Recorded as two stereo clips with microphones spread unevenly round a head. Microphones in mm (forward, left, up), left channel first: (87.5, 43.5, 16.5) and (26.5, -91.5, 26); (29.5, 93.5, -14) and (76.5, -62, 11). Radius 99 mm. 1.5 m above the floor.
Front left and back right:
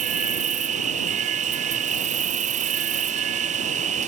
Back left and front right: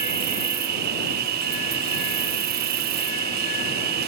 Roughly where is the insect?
Right.